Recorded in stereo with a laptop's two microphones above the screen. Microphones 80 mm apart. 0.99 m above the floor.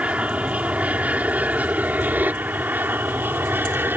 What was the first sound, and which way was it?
An aircraft, 15° right (ahead or behind).